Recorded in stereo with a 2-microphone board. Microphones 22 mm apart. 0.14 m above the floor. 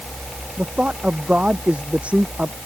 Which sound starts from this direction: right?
A man speaking, at 0.6 s.